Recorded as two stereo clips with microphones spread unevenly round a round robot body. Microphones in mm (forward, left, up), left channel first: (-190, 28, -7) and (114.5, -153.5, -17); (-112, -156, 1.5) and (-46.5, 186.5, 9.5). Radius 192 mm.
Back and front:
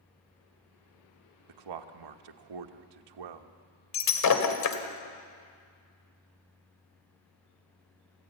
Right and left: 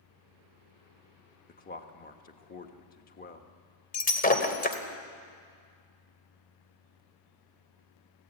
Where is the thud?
No thud in this recording.